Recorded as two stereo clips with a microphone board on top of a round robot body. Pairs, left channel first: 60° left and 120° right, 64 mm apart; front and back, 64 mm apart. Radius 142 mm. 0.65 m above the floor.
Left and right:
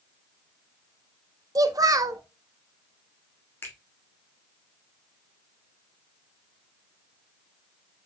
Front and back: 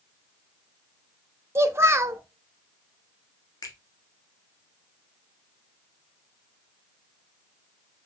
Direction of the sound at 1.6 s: 135° right.